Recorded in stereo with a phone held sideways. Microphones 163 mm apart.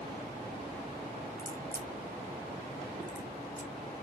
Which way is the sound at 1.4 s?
60° right (ahead or behind).